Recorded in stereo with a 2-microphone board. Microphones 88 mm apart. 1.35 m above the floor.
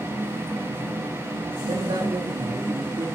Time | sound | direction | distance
1.7 | a man speaking | 70° right (ahead or behind) | 2 m